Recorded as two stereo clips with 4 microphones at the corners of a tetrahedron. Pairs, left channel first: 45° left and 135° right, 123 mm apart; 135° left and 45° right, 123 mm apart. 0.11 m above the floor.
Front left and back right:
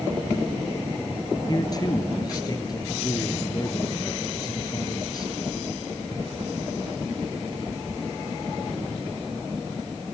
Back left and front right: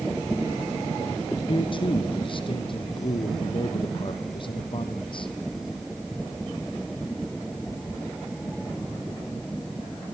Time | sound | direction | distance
1.5 | a man speaking | 95° left | 3 m